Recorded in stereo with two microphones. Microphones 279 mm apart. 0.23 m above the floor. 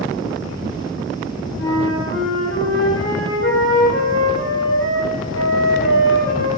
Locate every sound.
1.6 s a flute: 50° left (ahead or behind), 5 m